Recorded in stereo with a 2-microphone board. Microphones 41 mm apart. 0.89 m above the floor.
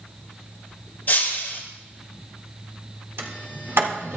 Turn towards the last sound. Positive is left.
turn(degrees=-70)  # may be behind; listen again after turning